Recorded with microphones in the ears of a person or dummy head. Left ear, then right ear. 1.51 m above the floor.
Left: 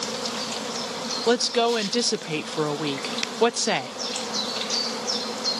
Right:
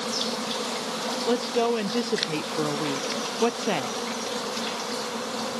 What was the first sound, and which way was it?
A woman speaking, 55° left (ahead or behind).